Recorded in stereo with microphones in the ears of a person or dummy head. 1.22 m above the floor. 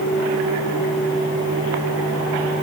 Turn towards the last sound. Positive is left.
No sound to turn to.